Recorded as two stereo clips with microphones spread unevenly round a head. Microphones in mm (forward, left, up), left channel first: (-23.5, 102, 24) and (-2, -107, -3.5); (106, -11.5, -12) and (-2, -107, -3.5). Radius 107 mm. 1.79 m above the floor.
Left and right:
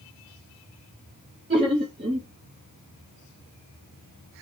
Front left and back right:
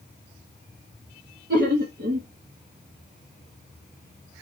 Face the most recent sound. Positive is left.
turn(degrees=-145)